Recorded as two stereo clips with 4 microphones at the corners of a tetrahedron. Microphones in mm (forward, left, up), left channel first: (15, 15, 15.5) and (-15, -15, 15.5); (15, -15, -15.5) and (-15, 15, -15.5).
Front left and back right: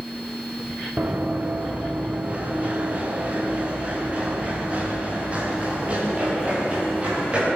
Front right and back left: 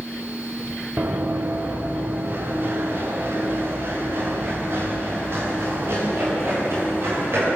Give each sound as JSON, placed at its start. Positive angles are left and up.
{"t": 1.0, "sound": "running footsteps", "azimuth_deg": 175, "distance_m": 3.0}